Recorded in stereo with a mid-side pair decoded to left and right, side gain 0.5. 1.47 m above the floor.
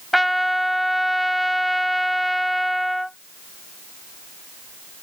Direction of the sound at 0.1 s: Straight ahead.